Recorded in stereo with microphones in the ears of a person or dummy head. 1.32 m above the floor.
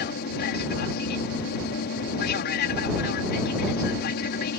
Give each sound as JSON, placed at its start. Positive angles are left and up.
{"t": 0.0, "sound": "an aircraft", "side_deg": 50}